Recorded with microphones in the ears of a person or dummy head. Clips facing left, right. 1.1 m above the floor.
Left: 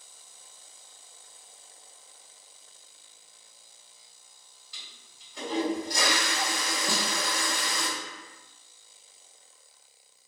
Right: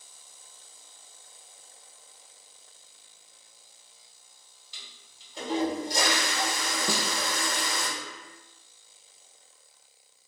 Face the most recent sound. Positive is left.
turn(degrees=-75)  # may be behind; listen again after turning